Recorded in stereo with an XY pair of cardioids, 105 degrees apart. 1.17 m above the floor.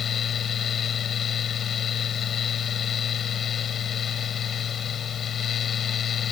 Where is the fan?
55° left.